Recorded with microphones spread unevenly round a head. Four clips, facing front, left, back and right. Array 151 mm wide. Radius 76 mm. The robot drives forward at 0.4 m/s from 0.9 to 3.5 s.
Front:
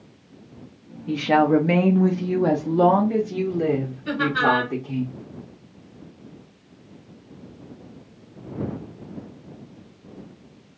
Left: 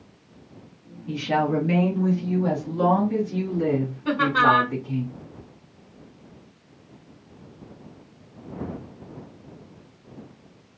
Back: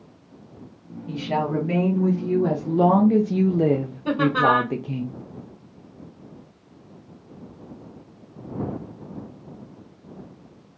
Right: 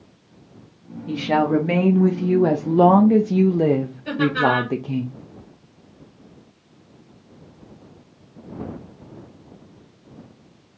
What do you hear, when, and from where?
1.1 s a woman speaking: 30° right, 1.0 m; by 5.0 s 110° right, 0.5 m
4.0 s laughter: 140° left, 2 m